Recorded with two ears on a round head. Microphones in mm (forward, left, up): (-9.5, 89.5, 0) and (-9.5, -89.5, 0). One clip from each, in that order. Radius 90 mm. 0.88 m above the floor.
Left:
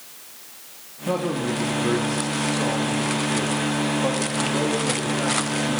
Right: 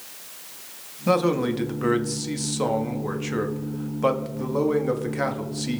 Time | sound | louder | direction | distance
1.1 | a man speaking | right 3 dB | 55° right (ahead or behind) | 1.4 m